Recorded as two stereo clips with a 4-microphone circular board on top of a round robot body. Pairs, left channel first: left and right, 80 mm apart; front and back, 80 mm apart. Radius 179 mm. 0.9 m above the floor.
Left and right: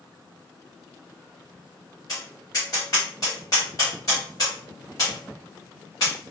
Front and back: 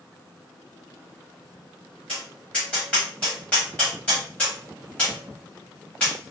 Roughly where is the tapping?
Left.